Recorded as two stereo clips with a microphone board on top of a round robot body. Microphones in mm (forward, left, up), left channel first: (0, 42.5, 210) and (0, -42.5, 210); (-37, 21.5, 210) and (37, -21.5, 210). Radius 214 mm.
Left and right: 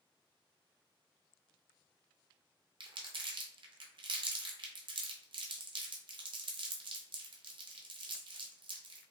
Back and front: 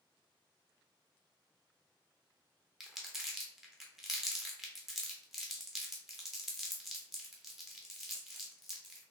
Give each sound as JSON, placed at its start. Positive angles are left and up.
{"t": 2.8, "sound": "crumpling", "azimuth_deg": -115, "distance_m": 0.5}